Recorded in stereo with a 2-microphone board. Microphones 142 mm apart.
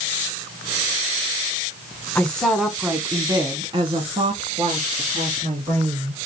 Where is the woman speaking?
10° left (ahead or behind), 1.2 m; by 6.2 s 65° right (ahead or behind), 2.5 m.